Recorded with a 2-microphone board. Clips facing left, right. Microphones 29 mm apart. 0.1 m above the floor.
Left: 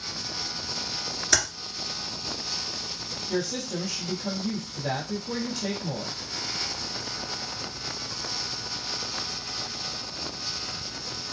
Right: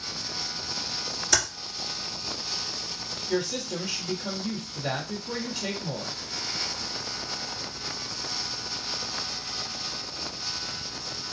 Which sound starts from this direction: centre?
Typing on a keyboard, at 1.3 s.